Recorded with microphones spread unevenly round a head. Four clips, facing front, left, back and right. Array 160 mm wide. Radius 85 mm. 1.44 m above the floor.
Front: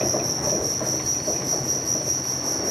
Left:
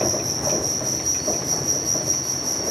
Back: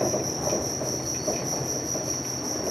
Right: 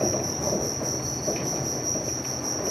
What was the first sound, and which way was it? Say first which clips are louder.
An insect: left 1 dB, even; 120° right.